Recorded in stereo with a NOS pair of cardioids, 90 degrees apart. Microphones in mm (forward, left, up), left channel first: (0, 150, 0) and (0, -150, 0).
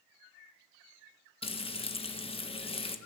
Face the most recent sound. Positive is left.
turn(degrees=20)